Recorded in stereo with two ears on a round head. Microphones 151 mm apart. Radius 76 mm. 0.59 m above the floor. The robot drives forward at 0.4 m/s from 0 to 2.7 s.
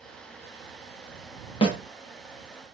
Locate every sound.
1.6 s a snare drum: 30° left (ahead or behind), 0.7 m